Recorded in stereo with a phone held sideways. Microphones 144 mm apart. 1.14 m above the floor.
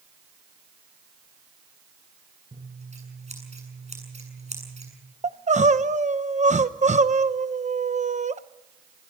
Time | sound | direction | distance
2.5 | scissors | 50° right (ahead or behind) | 8 m
5.2 | crying | 55° right (ahead or behind) | 0.8 m